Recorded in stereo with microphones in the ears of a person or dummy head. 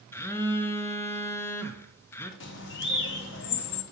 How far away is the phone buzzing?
About 0.5 m.